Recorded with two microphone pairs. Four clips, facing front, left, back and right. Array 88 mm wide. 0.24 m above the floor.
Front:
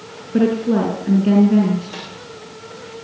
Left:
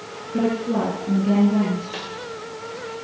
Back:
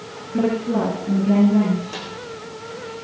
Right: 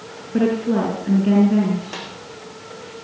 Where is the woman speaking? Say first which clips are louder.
Right 3 dB, front 4 dB; 20° right, 5.5 m.